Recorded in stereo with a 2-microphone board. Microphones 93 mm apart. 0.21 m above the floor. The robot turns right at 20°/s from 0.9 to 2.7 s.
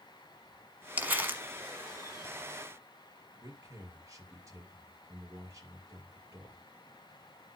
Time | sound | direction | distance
1.0 | crumpling | 20° right (ahead or behind) | 1.2 m
3.4 | a man speaking | 35° right (ahead or behind) | 4.5 m